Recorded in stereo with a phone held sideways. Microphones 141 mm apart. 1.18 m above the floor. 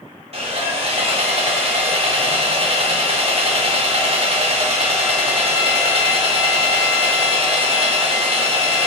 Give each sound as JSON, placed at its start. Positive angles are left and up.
{"t": 0.3, "sound": "sawing", "side_deg": -50, "distance_m": 0.9}